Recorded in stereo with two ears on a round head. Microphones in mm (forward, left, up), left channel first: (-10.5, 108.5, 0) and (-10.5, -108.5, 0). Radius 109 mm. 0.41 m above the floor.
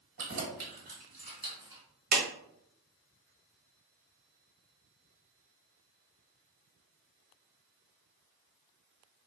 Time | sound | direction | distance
0.2 | keys jangling | 50° right (ahead or behind) | 1.4 m
2.1 | a clap | 35° right (ahead or behind) | 1.9 m